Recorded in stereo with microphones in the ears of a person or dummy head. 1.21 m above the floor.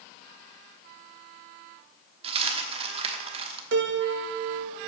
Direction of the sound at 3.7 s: 60° right (ahead or behind).